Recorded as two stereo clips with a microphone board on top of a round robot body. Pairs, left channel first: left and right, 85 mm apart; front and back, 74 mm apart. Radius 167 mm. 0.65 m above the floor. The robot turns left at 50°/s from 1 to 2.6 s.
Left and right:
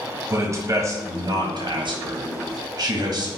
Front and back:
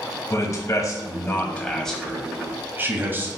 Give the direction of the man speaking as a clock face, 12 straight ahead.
2 o'clock.